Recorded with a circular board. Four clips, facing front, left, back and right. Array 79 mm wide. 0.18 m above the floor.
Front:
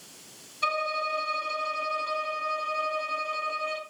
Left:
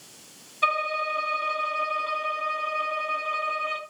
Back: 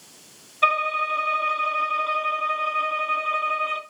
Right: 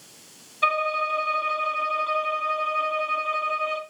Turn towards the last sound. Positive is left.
turn(degrees=-175)